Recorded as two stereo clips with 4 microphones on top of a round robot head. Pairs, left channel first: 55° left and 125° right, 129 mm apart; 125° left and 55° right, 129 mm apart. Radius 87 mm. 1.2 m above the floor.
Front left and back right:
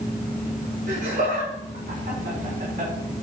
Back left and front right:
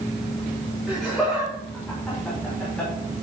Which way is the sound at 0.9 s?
140° right.